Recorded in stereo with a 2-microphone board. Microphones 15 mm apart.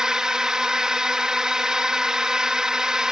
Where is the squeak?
No squeak in this recording.